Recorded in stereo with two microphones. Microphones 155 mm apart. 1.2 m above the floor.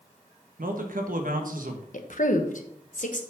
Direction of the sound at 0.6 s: 70° right (ahead or behind).